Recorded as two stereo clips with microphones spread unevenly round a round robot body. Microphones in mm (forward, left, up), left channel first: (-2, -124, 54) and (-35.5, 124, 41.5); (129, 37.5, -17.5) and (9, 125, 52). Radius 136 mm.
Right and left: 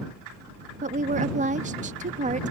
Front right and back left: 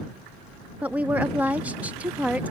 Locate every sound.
0.8 s a woman speaking: 45° left